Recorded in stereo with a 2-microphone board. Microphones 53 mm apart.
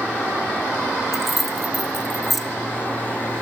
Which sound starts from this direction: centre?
Keys jangling, at 1.1 s.